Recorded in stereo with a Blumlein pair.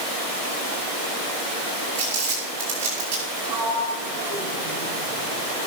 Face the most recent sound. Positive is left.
turn(degrees=-45)